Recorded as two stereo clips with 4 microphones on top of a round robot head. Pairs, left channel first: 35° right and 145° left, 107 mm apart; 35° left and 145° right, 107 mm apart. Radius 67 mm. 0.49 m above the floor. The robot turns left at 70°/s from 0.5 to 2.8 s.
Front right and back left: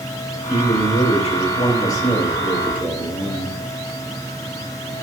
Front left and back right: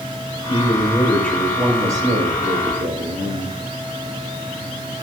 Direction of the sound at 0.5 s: 10° left.